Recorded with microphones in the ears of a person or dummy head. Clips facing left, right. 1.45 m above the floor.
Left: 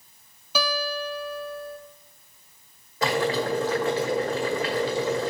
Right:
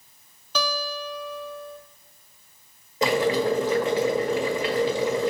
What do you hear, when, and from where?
0.6 s a guitar: 10° left (ahead or behind), 0.7 m
3.0 s boiling: 20° right (ahead or behind), 1.7 m